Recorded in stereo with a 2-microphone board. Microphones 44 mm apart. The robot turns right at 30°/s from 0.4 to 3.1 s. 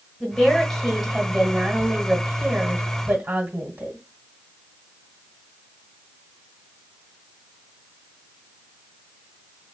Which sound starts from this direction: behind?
A woman speaking, at 0.2 s.